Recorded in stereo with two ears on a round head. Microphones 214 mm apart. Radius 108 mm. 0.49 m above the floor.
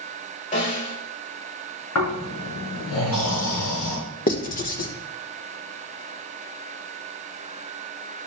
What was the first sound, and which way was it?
A snare drum, 35° left (ahead or behind).